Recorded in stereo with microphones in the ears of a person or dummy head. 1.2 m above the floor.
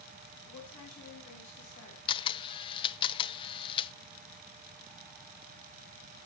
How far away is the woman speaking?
About 8 m.